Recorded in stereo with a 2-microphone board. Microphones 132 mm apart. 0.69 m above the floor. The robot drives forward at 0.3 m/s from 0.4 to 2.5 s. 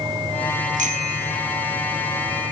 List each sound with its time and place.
0.8 s a bicycle bell: 75° right (ahead or behind), 7.5 m; by 1.4 s 80° right, 7.5 m